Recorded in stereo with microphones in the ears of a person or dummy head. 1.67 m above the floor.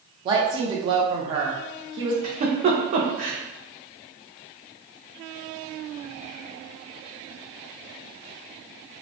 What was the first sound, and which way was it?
A woman speaking, 25° right (ahead or behind).